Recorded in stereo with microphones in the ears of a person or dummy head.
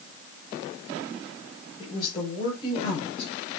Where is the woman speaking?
25° left (ahead or behind), 5 m; by 3.6 s 35° left (ahead or behind), 4 m.